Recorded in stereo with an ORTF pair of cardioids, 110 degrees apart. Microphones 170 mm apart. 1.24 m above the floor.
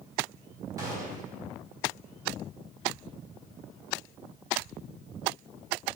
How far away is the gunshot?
About 3.5 m.